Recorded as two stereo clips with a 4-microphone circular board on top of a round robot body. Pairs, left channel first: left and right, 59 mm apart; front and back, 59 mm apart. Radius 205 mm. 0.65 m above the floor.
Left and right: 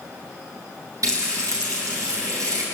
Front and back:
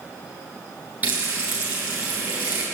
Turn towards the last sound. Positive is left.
turn(degrees=-120)